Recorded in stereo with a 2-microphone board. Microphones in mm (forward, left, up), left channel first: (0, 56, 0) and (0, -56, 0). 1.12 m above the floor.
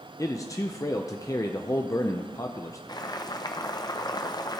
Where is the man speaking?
30° left (ahead or behind), 0.6 m.